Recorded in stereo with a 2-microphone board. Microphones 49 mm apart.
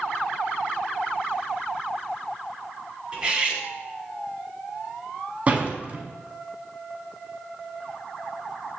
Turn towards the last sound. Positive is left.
turn(degrees=-30)  # may be behind; listen again after turning